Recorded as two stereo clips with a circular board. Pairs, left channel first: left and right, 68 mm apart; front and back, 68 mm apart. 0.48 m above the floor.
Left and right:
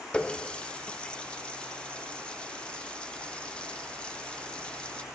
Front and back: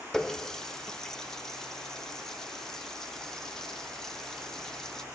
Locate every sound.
0.1 s a running tap: 60° left, 0.6 m